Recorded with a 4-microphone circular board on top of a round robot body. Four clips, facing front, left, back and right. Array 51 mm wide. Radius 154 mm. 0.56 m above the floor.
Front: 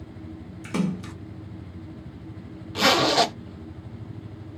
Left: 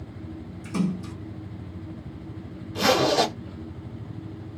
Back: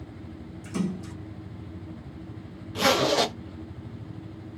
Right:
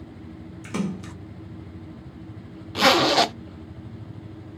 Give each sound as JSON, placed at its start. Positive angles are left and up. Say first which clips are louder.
{"t": 0.6, "sound": "a splash", "louder": "left 2 dB, front 3 dB", "azimuth_deg": -35, "distance_m": 0.6}
{"t": 2.8, "sound": "a zipper", "louder": "right 3 dB, front 2 dB", "azimuth_deg": -70, "distance_m": 1.0}